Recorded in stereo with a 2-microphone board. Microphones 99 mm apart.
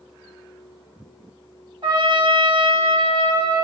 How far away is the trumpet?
About 2 m.